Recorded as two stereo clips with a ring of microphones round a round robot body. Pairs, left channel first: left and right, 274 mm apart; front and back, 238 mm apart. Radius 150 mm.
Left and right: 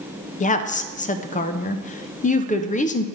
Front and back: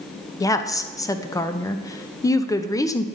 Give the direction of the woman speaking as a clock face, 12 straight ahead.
10 o'clock.